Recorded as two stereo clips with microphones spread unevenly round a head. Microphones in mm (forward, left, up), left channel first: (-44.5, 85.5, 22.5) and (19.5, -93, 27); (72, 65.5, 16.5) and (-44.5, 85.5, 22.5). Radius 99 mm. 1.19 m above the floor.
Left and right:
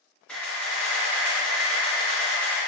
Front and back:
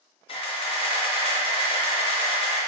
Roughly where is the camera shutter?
Ahead left.